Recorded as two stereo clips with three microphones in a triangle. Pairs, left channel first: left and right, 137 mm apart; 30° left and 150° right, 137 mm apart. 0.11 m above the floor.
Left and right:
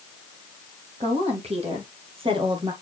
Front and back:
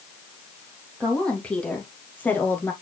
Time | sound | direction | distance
1.0 | a woman speaking | 55° right | 3.5 m